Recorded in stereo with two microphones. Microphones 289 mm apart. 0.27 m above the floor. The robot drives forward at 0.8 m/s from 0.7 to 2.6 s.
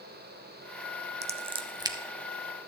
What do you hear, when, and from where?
1.2 s scissors: 20° right (ahead or behind), 0.5 m; by 2.0 s 15° right (ahead or behind), 0.9 m